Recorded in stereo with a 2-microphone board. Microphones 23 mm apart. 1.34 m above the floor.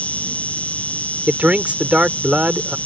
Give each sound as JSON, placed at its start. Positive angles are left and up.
{"t": 0.0, "sound": "an insect", "side_deg": 80}
{"t": 1.3, "sound": "a man speaking", "side_deg": -90}